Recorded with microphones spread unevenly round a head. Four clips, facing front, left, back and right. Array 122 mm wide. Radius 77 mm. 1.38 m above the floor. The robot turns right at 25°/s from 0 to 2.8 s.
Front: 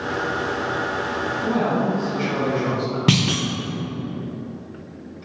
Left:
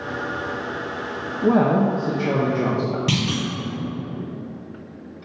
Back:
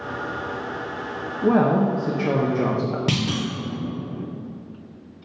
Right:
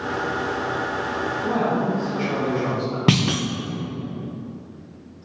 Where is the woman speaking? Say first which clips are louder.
Left 6 dB, back 5 dB; 125° left, 1.1 m; by 3.0 s 160° left, 1.1 m.